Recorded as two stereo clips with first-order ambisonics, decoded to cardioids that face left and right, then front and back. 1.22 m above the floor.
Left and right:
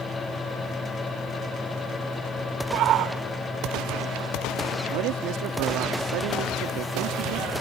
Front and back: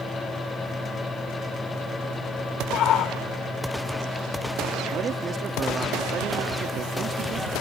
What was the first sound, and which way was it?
A shout, 50° right.